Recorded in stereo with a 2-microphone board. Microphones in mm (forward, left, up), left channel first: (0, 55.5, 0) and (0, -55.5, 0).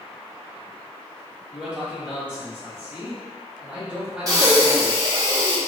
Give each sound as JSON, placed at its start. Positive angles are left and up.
{"t": 1.5, "sound": "a man speaking", "side_deg": -10, "distance_m": 1.2}
{"t": 4.3, "sound": "breathing", "side_deg": -35, "distance_m": 0.8}